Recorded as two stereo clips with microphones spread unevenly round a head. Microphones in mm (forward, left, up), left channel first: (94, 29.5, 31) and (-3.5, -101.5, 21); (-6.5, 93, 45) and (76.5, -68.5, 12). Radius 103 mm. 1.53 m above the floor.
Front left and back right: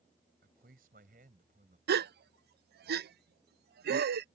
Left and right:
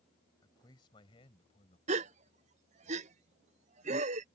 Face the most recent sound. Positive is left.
turn(degrees=-115)